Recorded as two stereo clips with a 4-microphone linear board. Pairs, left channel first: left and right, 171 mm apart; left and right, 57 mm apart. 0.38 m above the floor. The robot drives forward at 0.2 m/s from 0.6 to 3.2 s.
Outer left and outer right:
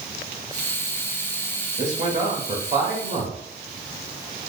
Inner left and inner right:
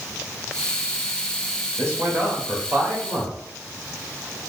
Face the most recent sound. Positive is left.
turn(degrees=-40)  # may be behind; listen again after turning